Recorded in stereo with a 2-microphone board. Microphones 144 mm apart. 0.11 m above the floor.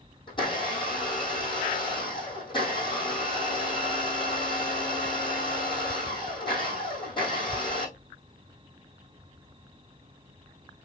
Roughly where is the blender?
Left.